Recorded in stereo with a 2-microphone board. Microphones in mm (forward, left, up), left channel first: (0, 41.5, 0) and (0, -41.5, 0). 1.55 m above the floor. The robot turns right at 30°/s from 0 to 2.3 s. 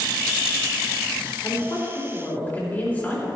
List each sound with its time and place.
1.4 s a woman speaking: 50° left (ahead or behind), 3.5 m; by 3.3 s 20° left (ahead or behind), 3.5 m